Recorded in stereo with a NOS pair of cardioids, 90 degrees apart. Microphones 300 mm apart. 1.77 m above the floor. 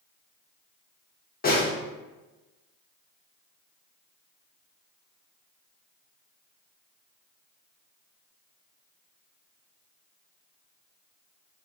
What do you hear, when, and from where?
1.4 s a snare drum: 30° left, 1.1 m